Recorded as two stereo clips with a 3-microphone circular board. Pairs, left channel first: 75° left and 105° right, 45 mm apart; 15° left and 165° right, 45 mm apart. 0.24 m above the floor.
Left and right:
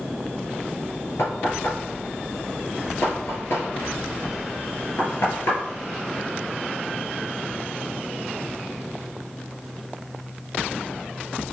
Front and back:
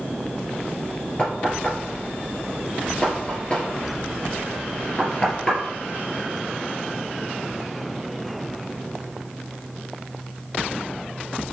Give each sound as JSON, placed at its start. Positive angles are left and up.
{"t": 1.2, "sound": "knocking", "azimuth_deg": 80, "distance_m": 2.5}